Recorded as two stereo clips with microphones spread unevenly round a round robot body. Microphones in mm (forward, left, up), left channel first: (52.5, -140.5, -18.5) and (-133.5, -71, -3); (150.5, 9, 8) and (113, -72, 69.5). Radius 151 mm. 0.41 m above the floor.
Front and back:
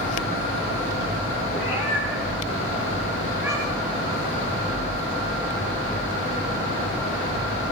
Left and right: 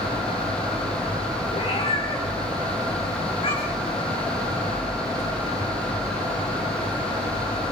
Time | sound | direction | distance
1.5 | a cat meowing | 65° left | 10 m